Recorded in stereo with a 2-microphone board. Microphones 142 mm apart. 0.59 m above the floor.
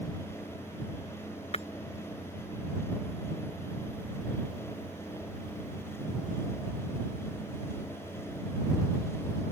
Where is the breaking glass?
50° left (ahead or behind).